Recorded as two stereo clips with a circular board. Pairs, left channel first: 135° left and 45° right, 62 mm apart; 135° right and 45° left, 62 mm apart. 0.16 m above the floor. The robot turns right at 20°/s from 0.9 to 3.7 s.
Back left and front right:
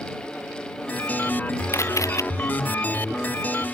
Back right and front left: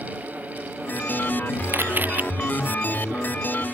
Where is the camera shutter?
95° left; by 2.2 s 105° left.